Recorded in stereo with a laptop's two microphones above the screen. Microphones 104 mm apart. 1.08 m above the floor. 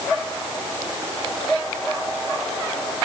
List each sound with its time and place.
Only background noise.